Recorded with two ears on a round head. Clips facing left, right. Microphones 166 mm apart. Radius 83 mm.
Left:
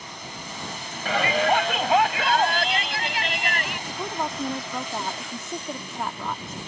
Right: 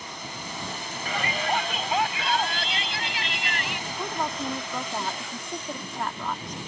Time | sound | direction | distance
1.1 | a shout | 55° left (ahead or behind) | ?
3.9 | a woman speaking | 5° left (ahead or behind) | ?